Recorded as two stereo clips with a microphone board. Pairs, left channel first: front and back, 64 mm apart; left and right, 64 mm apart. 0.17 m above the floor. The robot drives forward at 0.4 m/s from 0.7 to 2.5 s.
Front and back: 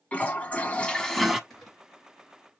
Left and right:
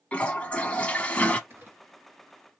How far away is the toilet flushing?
About 0.6 m.